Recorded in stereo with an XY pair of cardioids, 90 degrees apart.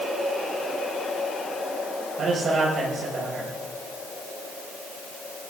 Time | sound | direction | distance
2.2 | a man speaking | 65° right | 7 m